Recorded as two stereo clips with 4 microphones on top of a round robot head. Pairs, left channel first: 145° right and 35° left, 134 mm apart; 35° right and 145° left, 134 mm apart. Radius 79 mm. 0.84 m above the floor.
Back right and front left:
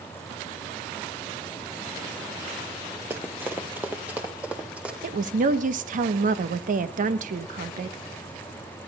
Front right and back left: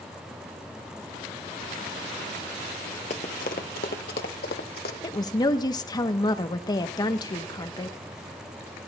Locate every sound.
3.1 s running footsteps: 35° right, 1.0 m; by 4.9 s 45° right, 2.5 m
5.0 s a woman speaking: 25° left, 1.1 m